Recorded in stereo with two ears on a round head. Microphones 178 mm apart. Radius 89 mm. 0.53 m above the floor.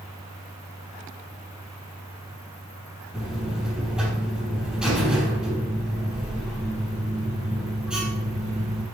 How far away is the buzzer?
About 4 m.